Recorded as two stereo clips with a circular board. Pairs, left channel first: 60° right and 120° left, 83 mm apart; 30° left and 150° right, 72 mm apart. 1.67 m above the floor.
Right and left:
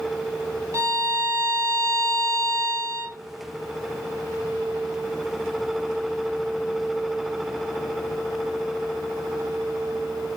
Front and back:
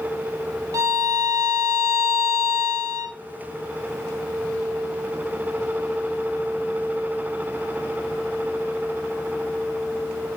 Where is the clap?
No clap in this recording.